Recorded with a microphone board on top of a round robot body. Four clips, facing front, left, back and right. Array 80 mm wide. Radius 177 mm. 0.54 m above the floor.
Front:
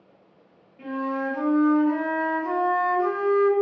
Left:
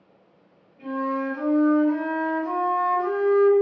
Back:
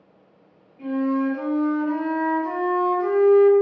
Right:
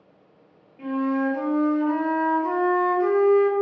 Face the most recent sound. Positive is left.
turn(degrees=-75)